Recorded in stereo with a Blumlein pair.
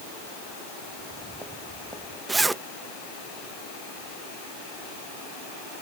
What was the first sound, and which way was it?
Footsteps, 10° right.